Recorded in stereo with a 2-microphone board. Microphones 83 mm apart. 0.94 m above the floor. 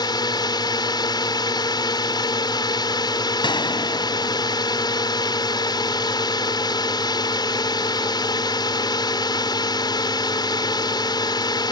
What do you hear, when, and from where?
0.0 s a drone: 60° left (ahead or behind)
3.4 s a gunshot: 70° left (ahead or behind)